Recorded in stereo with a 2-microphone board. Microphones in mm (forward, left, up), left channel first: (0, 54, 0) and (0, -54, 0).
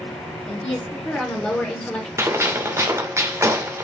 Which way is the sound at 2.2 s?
25° right (ahead or behind).